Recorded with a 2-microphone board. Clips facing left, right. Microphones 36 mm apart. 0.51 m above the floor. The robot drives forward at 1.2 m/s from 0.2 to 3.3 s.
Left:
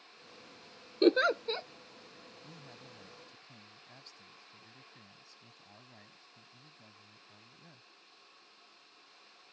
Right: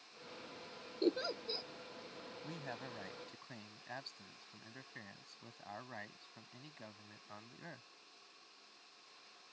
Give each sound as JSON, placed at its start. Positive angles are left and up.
{"t": 1.0, "sound": "a giggle", "side_deg": 70}
{"t": 2.4, "sound": "a man speaking", "side_deg": -65}